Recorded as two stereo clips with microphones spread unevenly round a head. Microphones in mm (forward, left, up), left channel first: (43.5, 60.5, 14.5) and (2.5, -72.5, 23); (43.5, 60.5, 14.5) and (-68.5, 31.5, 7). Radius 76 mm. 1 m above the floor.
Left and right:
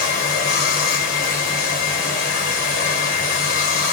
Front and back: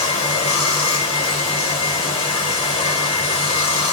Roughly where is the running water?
Ahead left.